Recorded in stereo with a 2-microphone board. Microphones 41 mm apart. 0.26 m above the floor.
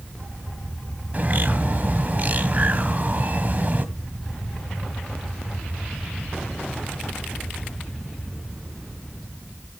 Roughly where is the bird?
Right.